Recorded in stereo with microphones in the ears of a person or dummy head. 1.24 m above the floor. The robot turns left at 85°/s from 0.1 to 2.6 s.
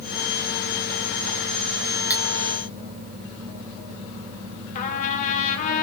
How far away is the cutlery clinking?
About 2 m.